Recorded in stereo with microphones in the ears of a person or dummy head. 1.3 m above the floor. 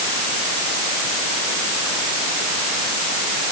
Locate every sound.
Only background noise.